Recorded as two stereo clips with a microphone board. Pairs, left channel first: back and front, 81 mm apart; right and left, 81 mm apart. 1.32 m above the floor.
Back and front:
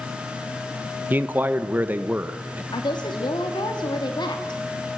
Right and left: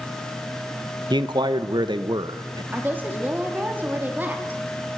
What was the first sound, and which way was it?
A man speaking, 70° left.